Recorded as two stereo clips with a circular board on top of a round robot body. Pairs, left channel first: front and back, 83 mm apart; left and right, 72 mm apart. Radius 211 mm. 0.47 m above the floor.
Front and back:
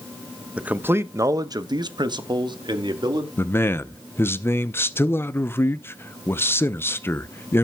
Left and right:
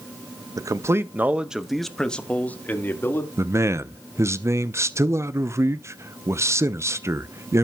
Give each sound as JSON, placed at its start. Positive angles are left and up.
{"t": 0.6, "sound": "a man speaking", "azimuth_deg": -105, "distance_m": 1.1}
{"t": 3.4, "sound": "a man speaking", "azimuth_deg": -55, "distance_m": 0.8}